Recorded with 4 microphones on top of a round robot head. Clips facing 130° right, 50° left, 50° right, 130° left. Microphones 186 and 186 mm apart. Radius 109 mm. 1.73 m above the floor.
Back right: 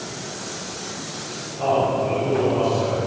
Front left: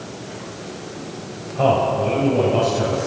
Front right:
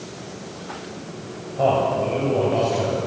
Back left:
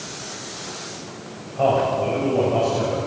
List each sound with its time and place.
1.6 s a man speaking: 25° left, 9 m